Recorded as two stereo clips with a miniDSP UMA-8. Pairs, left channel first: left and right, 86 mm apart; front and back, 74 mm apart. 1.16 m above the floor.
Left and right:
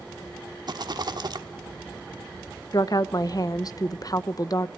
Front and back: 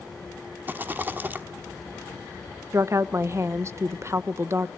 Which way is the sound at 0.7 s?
120° right.